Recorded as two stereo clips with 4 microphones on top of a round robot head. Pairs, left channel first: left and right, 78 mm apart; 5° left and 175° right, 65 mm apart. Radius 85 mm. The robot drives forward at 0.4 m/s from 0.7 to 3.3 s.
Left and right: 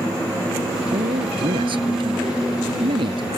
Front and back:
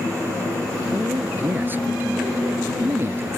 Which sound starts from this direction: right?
A man speaking, at 0.9 s.